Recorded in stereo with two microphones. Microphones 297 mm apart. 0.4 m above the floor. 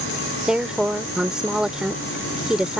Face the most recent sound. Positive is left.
turn(degrees=-5)  # may be behind; listen again after turning